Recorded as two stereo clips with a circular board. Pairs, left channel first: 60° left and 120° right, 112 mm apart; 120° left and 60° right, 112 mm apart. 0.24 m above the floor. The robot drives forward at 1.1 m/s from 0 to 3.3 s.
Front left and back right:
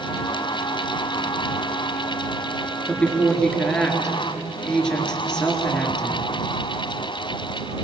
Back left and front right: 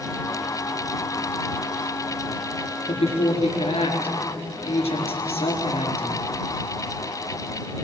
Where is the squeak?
I don't hear a squeak.